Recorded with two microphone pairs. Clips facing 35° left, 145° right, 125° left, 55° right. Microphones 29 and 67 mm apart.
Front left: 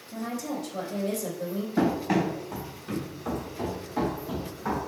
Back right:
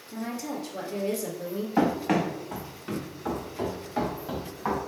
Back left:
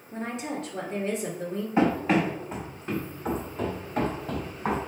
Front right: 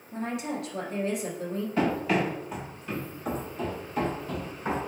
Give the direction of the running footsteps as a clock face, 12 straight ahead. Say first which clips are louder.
Back right 1 dB, back left 3 dB; 6 o'clock.